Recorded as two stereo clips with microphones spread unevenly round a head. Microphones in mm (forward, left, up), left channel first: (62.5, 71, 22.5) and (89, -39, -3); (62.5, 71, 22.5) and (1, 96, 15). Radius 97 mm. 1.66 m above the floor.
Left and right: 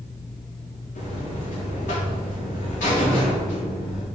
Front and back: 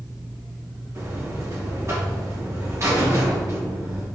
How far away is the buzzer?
About 3.5 m.